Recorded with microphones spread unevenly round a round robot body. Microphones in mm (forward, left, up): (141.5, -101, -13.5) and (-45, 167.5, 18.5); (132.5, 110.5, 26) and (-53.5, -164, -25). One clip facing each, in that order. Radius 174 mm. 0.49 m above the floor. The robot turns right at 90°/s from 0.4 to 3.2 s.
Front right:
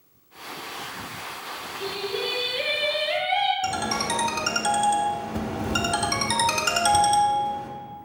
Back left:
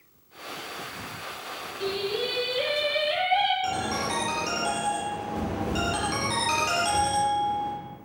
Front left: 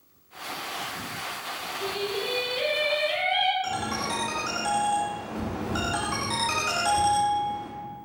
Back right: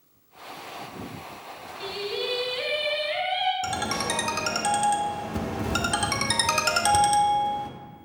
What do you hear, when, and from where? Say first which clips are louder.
1.8 s singing: back left 1 dB, front left 1 dB; 155° right, 1.7 m; by 3.5 s 30° right, 1.7 m
3.6 s a ringtone: front right 1 dB, back right 1 dB; 105° right, 0.8 m